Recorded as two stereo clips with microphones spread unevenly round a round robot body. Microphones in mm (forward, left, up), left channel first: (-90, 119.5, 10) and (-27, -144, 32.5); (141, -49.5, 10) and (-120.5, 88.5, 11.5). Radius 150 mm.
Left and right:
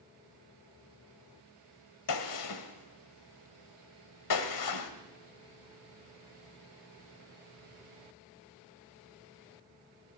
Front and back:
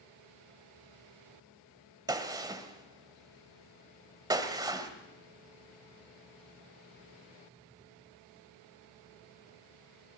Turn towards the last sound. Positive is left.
turn(degrees=75)